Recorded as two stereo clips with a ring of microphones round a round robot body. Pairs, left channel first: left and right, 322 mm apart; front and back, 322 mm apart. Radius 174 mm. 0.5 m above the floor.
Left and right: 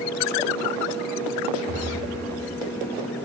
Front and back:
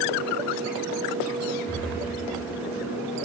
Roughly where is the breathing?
Right.